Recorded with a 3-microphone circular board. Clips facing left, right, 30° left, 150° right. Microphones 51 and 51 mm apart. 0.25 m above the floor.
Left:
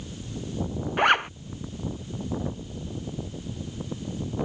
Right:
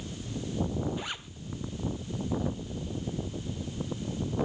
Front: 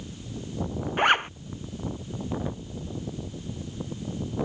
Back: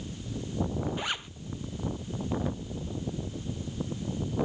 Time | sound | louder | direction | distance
1.0 | a zipper | left 18 dB, front 13 dB | 70° left | ?